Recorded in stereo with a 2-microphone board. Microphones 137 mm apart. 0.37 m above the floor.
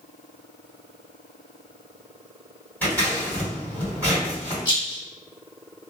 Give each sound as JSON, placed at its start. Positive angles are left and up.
{"t": 2.8, "sound": "scissors", "side_deg": 10, "distance_m": 1.9}
{"t": 4.7, "sound": "a rattle", "side_deg": 30, "distance_m": 1.2}